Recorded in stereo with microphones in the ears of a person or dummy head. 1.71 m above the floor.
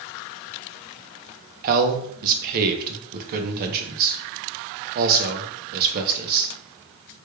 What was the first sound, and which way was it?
A man speaking, 45° right (ahead or behind).